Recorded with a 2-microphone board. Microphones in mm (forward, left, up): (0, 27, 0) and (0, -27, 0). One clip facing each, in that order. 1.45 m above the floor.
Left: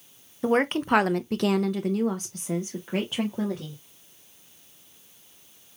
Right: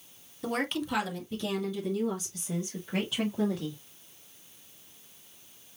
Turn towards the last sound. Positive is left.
turn(degrees=30)  # may be behind; listen again after turning